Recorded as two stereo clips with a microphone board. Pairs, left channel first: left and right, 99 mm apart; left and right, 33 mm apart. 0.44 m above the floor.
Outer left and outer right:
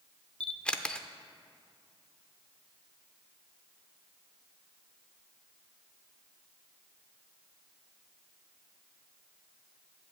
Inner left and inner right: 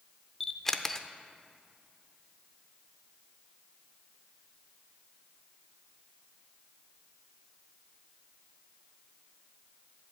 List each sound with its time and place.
0.4 s a camera shutter: 10° left (ahead or behind), 0.5 m